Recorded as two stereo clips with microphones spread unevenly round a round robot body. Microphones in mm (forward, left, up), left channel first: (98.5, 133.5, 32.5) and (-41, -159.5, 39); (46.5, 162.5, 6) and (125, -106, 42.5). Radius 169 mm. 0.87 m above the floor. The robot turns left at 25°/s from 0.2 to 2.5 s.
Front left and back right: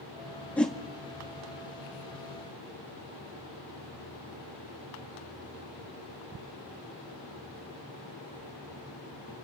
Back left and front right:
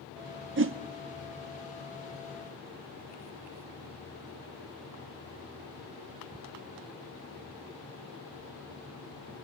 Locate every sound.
0.6 s a whoosh: 20° right, 0.7 m; by 0.8 s 25° right, 0.7 m